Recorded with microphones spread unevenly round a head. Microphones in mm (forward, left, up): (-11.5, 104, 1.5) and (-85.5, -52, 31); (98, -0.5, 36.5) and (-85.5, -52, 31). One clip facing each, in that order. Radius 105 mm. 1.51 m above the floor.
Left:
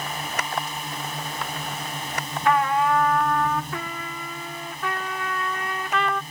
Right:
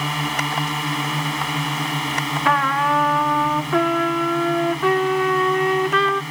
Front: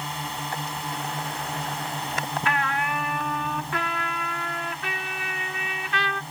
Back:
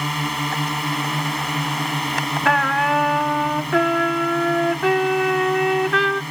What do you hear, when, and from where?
0.0 s a drone: 140° right
2.5 s a trumpet: 120° right